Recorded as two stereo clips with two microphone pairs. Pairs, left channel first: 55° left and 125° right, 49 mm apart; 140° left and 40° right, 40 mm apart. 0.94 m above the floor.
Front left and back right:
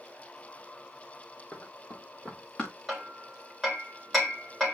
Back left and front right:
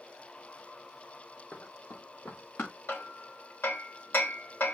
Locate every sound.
1.5 s running footsteps: 110° left, 6 m; by 2.7 s 125° left, 5.5 m
2.9 s hammering: 145° left, 3.5 m